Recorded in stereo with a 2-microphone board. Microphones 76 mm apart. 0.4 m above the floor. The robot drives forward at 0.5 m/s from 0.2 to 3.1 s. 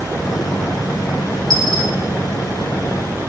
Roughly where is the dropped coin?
Left.